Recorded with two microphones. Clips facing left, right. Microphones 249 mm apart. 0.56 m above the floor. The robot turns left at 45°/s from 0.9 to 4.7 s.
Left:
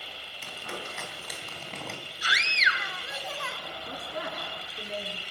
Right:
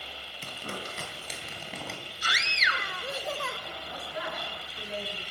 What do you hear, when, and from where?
0.4 s crumpling: 45° right (ahead or behind), 4 m; by 2.0 s 5° left (ahead or behind), 4 m
2.2 s a scream: 65° right, 1.3 m; by 3.6 s 125° right, 1.3 m
3.9 s a woman speaking: 70° left, 6.5 m; by 5.2 s 30° left, 6.5 m